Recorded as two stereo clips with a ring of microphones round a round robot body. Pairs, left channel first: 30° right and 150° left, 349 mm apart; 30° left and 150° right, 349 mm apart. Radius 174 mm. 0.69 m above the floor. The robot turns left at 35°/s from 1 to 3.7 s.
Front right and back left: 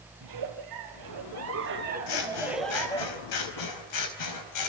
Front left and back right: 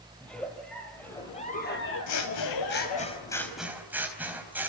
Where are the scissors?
10° right, 4 m; by 4.7 s 65° right, 4 m.